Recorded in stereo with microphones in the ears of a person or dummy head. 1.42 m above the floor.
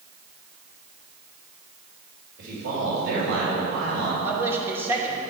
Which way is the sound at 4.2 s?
15° right (ahead or behind).